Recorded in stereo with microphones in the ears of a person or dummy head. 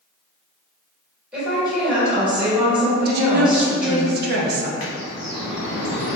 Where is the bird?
40° left (ahead or behind), 0.8 m.